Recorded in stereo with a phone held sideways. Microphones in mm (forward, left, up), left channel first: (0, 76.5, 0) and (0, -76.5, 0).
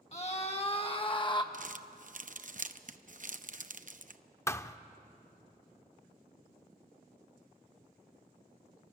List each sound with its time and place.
0.1 s a scream: 45° left (ahead or behind), 1.9 m; by 1.4 s 30° left (ahead or behind), 1.2 m
1.5 s crumpling: 55° right (ahead or behind), 0.7 m
4.5 s a thud: 20° left (ahead or behind), 0.6 m